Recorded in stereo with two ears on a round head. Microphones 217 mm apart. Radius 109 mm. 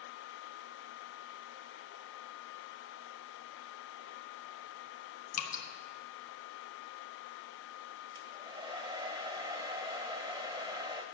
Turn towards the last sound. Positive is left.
turn(degrees=-20)  # may be behind; listen again after turning